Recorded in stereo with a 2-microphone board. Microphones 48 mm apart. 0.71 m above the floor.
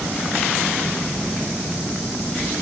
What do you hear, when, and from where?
Only background noise.